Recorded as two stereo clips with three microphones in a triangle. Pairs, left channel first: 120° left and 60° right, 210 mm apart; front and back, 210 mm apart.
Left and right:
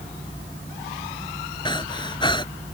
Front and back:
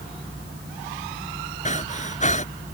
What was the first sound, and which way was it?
Breathing, 55° left.